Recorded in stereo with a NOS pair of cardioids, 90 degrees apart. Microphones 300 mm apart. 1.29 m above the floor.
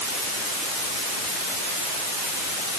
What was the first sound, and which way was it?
Only background noise.